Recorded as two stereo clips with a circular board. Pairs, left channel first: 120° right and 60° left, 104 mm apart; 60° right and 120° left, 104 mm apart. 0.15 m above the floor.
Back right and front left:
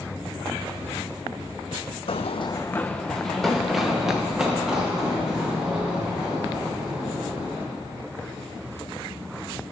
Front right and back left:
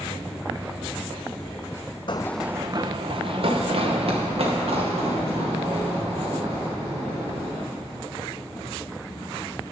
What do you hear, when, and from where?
2.1 s running footsteps: 100° right, 0.5 m; by 7.6 s 140° left, 7.5 m